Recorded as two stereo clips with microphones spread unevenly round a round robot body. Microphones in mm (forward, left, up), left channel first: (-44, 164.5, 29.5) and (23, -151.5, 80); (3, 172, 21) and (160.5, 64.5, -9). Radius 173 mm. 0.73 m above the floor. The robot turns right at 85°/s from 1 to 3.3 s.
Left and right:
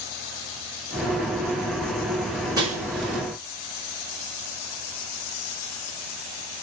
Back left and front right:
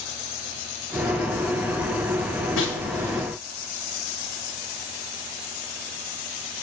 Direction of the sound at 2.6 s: 155° right.